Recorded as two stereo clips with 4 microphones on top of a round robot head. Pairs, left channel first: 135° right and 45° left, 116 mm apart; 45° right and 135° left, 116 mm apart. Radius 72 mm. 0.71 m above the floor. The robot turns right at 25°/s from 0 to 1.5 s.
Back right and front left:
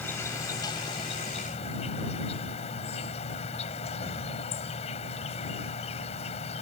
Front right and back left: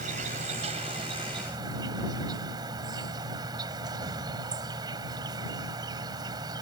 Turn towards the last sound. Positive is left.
turn(degrees=-170)